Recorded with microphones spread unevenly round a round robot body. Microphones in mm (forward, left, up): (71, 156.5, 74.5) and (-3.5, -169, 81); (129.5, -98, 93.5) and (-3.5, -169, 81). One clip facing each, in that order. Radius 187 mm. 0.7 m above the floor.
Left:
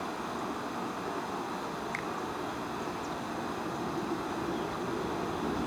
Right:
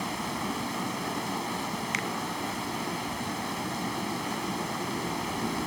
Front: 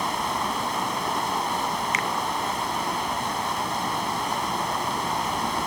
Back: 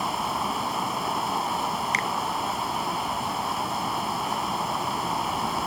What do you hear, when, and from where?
0.0 s running water: 65° right, 1.0 m
1.9 s a finger snap: 105° right, 0.6 m